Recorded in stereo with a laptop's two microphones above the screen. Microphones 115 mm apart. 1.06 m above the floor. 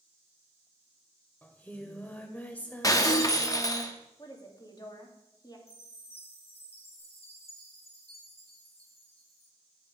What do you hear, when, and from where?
1.4 s singing: 15° left (ahead or behind), 1.4 m
2.8 s breaking glass: 30° left (ahead or behind), 0.8 m
4.2 s a woman speaking: 35° left (ahead or behind), 2.5 m
5.7 s a chime: 60° left (ahead or behind), 3.5 m